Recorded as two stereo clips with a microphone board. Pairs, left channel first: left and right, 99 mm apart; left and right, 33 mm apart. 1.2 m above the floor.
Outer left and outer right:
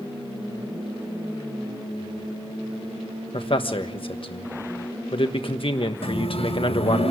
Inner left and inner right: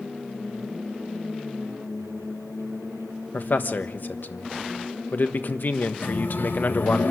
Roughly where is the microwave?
Left.